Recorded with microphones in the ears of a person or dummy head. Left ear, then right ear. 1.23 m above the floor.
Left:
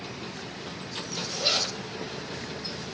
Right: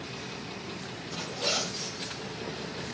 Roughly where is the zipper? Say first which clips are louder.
Left 4 dB; left.